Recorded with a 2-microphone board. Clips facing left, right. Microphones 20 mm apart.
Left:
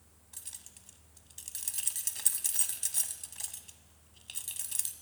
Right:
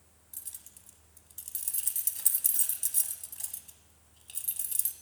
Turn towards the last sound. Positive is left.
turn(degrees=30)  # may be behind; listen again after turning